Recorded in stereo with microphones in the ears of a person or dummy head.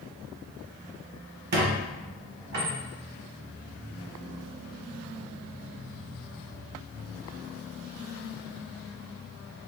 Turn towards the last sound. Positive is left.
turn(degrees=-55)  # may be behind; listen again after turning